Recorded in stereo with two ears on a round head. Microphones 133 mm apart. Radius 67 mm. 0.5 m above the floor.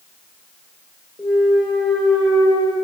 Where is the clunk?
Centre (ahead or behind), 0.9 m.